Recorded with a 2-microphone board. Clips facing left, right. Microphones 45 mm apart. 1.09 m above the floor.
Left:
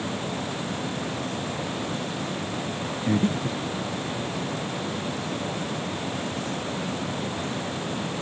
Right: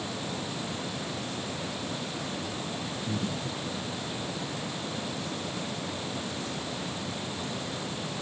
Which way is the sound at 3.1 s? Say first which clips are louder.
Left 11 dB; 45° left (ahead or behind).